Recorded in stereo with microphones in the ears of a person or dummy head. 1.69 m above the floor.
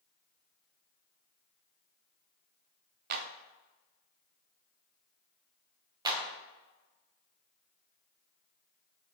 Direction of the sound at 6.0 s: 20° right (ahead or behind).